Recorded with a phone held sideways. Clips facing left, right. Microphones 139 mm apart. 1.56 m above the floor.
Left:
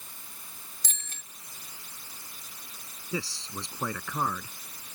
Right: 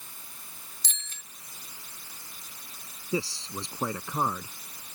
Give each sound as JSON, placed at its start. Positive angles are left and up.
{"t": 0.8, "sound": "a bicycle bell", "side_deg": 50}
{"t": 3.1, "sound": "a man speaking", "side_deg": -25}